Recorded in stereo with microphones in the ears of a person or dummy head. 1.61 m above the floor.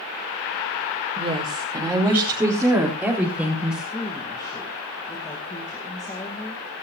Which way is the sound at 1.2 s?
35° right (ahead or behind).